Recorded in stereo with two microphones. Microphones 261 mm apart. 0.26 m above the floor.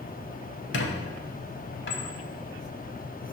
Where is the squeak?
45° left (ahead or behind), 0.6 m.